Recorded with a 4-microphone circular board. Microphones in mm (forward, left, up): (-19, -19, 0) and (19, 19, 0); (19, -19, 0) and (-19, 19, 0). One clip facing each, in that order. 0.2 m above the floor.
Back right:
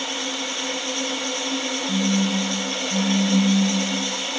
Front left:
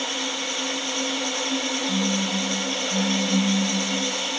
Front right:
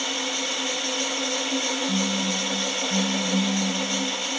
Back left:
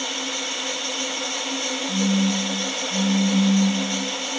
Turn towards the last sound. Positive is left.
turn(degrees=-60)